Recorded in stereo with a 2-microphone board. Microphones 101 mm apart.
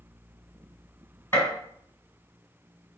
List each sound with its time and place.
1.3 s a gunshot: 20° left (ahead or behind), 1.7 m